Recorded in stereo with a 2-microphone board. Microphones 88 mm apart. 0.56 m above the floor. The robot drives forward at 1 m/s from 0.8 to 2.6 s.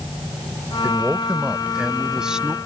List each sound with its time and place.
0.8 s a man speaking: 10° right (ahead or behind); by 2.5 s 5° right (ahead or behind)